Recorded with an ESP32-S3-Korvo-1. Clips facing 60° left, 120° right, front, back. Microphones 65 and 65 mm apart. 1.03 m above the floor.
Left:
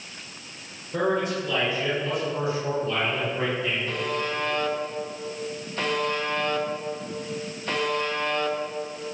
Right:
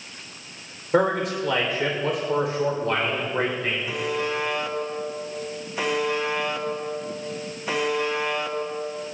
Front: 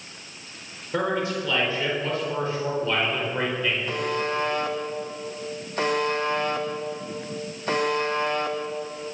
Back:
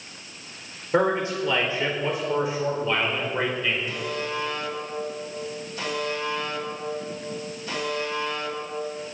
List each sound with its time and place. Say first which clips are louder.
0.9 s a man speaking: right 3 dB, back 3 dB; 120° right, 4.5 m; by 3.8 s 95° right, 4.5 m
3.9 s a buzzer: right 2 dB, front 3 dB; 40° right, 1.3 m